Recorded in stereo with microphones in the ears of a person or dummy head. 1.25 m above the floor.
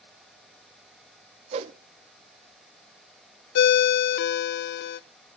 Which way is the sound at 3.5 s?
65° left (ahead or behind).